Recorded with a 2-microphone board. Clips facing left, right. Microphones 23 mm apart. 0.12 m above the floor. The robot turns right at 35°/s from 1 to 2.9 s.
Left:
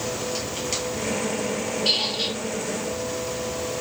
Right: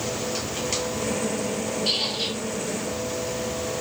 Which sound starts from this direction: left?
A squeak, at 1.9 s.